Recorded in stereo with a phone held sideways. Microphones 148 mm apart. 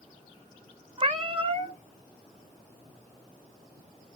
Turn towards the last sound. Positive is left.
turn(degrees=-35)  # may be behind; listen again after turning